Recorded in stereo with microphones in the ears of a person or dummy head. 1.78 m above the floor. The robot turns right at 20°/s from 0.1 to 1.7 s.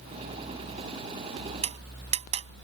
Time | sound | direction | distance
1.6 | tapping | 25° right (ahead or behind) | ?